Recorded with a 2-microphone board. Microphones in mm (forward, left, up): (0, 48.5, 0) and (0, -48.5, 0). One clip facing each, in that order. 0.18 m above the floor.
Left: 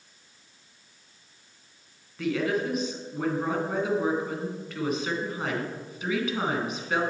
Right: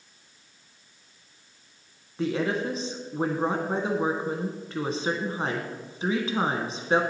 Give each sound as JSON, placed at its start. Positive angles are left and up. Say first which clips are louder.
{"t": 2.2, "sound": "a woman speaking", "louder": "even", "side_deg": -35, "distance_m": 1.5}